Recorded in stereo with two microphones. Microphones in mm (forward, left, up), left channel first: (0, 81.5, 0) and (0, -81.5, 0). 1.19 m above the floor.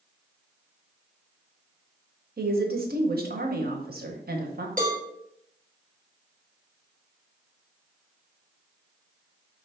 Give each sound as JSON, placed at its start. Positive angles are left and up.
{"t": 2.4, "sound": "a woman speaking", "side_deg": -60, "distance_m": 0.8}
{"t": 4.8, "sound": "a cowbell", "side_deg": -50, "distance_m": 1.2}